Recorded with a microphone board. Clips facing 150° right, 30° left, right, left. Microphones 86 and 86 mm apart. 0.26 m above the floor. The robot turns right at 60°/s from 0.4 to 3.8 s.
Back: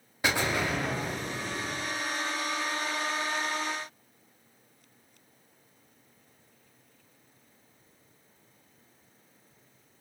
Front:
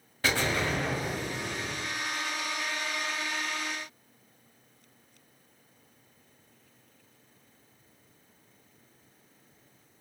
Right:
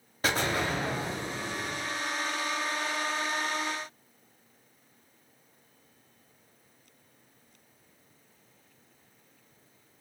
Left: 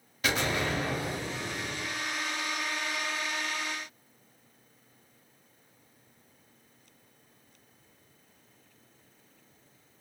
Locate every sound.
0.2 s an explosion: 85° right, 1.0 m; by 1.8 s straight ahead, 1.0 m